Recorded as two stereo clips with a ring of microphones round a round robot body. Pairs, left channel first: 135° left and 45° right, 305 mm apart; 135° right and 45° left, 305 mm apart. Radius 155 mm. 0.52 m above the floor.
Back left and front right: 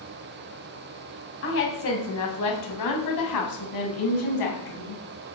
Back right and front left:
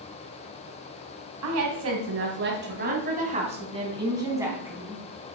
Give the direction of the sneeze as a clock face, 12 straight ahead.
I don't hear a sneeze.